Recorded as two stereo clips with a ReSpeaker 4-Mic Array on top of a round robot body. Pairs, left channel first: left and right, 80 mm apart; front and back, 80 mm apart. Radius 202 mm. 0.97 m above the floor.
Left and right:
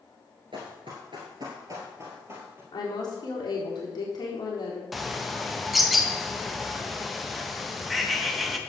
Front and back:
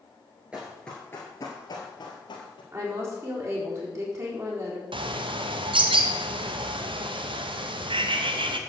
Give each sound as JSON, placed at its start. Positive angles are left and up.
{"t": 0.5, "sound": "running footsteps", "azimuth_deg": -105, "distance_m": 1.0}
{"t": 2.7, "sound": "a woman speaking", "azimuth_deg": 125, "distance_m": 4.0}
{"t": 4.9, "sound": "a bird", "azimuth_deg": 180, "distance_m": 1.0}